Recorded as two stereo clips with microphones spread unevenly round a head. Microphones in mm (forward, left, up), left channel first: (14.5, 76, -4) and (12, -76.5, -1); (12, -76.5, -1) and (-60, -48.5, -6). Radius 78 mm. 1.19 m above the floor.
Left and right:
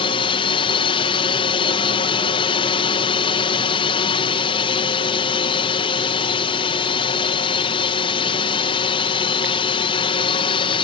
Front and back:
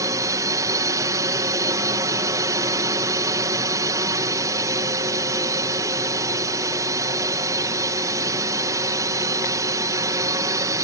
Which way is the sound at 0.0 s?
130° left.